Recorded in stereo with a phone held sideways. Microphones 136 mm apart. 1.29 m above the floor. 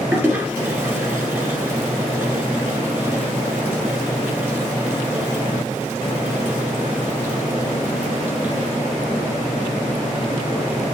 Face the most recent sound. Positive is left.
turn(degrees=-15)  # may be behind; listen again after turning